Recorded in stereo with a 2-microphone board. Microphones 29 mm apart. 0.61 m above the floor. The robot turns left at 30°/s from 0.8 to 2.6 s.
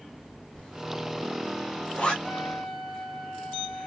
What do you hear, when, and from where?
0.6 s a zipper: 30° left (ahead or behind), 1.1 m; by 2.1 s 35° left (ahead or behind), 1.1 m
2.2 s a trumpet: 30° left (ahead or behind), 0.9 m; by 3.9 s 20° left (ahead or behind), 0.9 m